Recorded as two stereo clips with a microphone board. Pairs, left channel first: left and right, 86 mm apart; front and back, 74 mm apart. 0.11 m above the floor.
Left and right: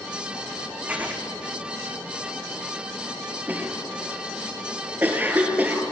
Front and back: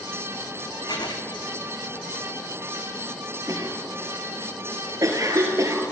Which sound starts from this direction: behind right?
A cough, at 3.5 s.